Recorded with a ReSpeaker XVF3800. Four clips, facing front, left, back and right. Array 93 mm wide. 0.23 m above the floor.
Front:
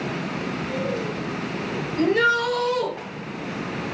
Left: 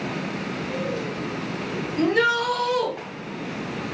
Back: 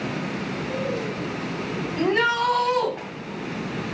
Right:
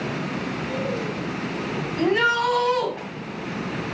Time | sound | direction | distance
2.0 | a shout | 140° right | 2 m